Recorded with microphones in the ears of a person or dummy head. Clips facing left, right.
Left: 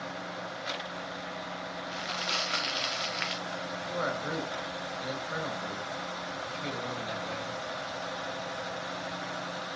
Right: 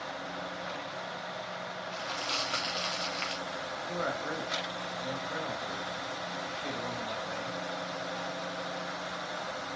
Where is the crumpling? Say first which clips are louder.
Left 1 dB; 25° left (ahead or behind), 1.2 m.